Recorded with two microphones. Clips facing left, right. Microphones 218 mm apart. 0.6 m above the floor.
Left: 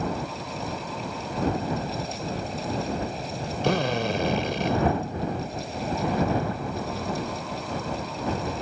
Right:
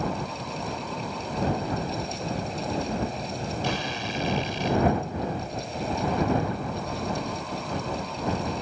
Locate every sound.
3.6 s a drill: 70° left (ahead or behind)